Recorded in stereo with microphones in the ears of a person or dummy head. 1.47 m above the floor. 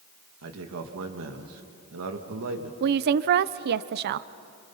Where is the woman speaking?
55° right (ahead or behind), 0.6 m.